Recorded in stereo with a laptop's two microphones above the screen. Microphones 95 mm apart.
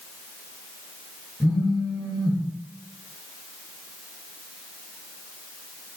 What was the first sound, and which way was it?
A phone buzzing, 5° left (ahead or behind).